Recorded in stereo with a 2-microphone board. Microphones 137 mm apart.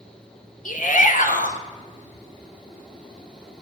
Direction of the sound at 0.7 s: 75° left (ahead or behind).